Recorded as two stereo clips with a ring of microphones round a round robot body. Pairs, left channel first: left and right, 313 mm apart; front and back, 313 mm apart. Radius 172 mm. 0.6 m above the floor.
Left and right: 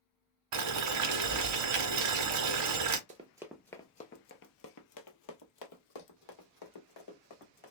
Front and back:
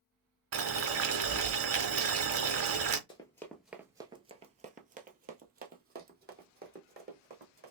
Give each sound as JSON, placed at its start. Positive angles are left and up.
{"t": 0.5, "sound": "boiling", "azimuth_deg": -130, "distance_m": 0.7}
{"t": 3.1, "sound": "running footsteps", "azimuth_deg": -60, "distance_m": 0.6}